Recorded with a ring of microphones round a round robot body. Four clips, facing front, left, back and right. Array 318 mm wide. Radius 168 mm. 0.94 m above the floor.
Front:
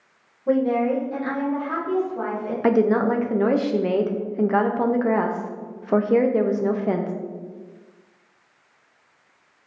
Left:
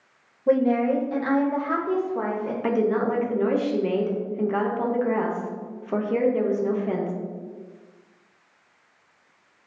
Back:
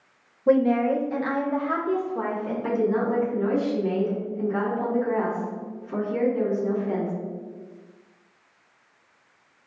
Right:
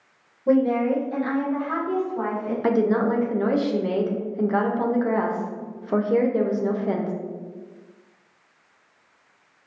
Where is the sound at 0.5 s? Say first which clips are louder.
Even, back 1 dB; 175° left, 0.8 m; by 2.5 s 120° left, 1.8 m.